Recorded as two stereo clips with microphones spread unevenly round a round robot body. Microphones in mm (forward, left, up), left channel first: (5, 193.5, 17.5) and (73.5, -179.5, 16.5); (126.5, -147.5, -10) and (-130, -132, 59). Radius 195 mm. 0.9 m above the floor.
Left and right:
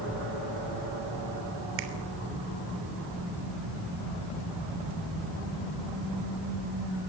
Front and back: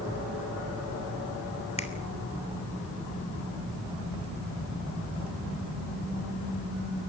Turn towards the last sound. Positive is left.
turn(degrees=-70)